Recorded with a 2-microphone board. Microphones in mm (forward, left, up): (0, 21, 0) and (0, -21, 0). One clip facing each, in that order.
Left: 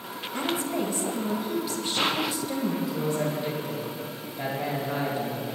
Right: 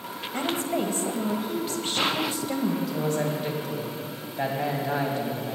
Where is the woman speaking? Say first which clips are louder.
Right 1 dB; 45° right (ahead or behind), 1.7 m.